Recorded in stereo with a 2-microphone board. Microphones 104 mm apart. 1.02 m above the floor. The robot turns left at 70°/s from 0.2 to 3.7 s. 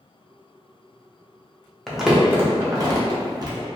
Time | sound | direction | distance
1.9 | crumpling | 5° left (ahead or behind) | 0.6 m